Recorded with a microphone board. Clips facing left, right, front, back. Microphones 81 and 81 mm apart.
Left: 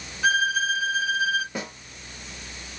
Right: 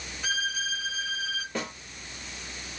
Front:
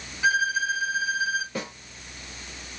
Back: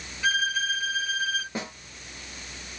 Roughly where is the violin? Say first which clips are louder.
Left 10 dB, front 3 dB; left.